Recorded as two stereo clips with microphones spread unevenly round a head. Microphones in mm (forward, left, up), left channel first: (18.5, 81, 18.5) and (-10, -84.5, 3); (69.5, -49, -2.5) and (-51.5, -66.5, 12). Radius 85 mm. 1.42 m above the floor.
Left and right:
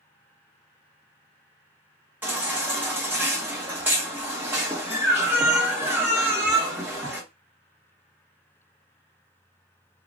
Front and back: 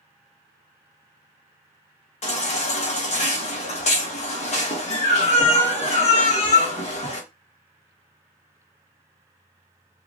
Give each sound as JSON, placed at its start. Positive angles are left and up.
{"t": 2.2, "sound": "a baby crying", "azimuth_deg": -20, "distance_m": 1.7}